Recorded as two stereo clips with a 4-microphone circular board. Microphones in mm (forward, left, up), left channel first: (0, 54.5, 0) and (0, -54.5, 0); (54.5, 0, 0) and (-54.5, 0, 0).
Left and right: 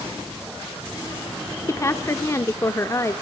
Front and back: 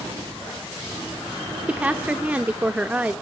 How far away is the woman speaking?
About 0.8 m.